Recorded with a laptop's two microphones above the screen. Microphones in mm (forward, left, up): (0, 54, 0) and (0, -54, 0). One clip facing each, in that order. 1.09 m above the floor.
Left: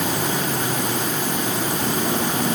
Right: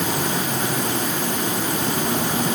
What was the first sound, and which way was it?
Only background noise.